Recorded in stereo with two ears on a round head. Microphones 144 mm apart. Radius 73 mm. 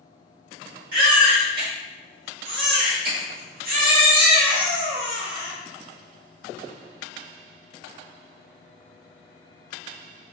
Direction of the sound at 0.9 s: 55° right (ahead or behind).